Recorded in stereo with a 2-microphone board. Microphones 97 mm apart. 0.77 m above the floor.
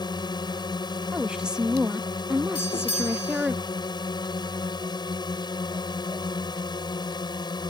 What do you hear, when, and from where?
0.0 s a drone: 45° left (ahead or behind)
1.1 s a woman speaking: 5° right (ahead or behind)
2.5 s a doorbell: 65° left (ahead or behind)